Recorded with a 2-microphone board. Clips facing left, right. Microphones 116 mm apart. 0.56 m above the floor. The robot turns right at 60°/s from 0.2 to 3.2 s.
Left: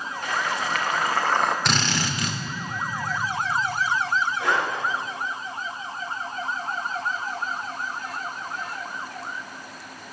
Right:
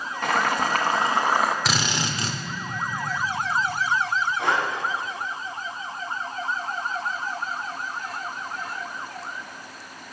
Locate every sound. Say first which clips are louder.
0.2 s boiling: right 5 dB; 80° right, 0.8 m; by 1.6 s straight ahead, 0.8 m
1.6 s a drill: left 1 dB; straight behind, 1.0 m; by 2.4 s 135° right, 1.0 m
4.4 s breathing: right 1 dB; 75° right (ahead or behind), 3 m